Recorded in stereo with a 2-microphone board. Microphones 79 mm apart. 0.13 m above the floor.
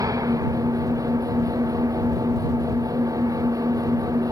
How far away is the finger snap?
I don't hear a finger snap.